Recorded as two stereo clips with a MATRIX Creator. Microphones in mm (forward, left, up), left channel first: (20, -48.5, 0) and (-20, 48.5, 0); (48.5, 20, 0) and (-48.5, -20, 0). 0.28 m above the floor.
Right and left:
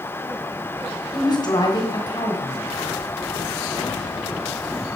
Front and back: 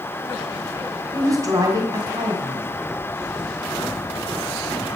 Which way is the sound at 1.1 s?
105° right.